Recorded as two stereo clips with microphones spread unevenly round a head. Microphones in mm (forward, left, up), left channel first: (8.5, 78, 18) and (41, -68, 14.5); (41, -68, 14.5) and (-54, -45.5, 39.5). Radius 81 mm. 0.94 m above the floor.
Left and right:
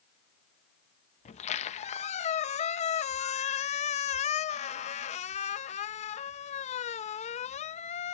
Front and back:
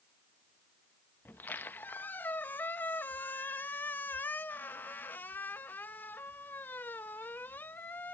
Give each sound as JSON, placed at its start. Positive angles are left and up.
{"t": 1.2, "sound": "a squeak", "azimuth_deg": 60}